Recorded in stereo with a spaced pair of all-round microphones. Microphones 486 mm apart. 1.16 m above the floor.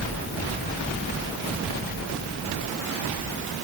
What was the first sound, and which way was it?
Only background noise.